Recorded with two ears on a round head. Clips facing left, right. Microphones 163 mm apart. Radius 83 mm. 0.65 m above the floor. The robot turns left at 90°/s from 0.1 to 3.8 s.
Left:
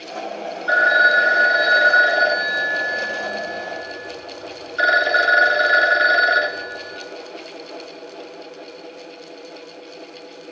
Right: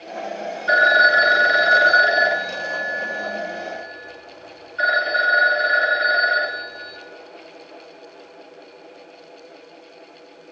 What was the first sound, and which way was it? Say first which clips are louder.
A phone ringing: right 1 dB; 20° right.